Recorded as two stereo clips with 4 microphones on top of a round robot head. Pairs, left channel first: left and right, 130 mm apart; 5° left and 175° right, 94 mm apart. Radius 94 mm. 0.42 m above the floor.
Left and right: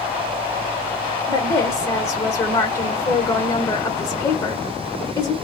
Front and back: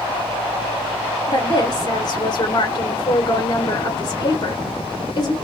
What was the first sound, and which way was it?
A woman speaking, 30° left.